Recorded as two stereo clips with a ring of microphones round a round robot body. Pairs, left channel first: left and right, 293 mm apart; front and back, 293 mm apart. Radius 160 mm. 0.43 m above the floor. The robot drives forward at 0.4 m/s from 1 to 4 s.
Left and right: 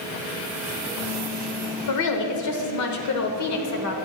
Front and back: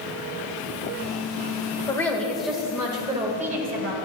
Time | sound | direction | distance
1.9 | a woman speaking | 80° left | 1.2 m